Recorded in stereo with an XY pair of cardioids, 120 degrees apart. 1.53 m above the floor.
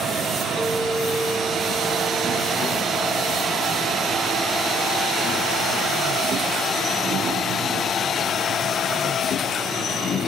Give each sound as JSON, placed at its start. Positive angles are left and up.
{"t": 0.6, "sound": "a clink", "azimuth_deg": -5}